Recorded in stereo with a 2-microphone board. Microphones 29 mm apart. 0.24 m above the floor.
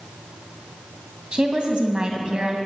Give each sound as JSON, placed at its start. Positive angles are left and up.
{"t": 1.3, "sound": "a woman speaking", "side_deg": -30, "distance_m": 1.7}